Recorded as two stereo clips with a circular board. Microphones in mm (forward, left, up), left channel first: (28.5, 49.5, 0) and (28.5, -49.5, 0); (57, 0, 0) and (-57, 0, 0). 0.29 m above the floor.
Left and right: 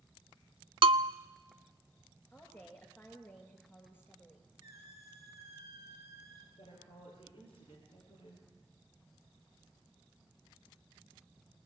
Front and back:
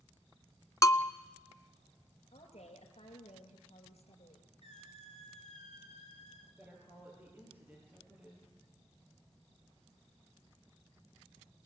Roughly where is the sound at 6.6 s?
Left.